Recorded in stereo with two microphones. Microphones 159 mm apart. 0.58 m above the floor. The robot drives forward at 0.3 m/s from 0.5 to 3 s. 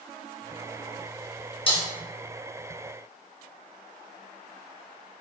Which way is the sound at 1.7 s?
35° left (ahead or behind).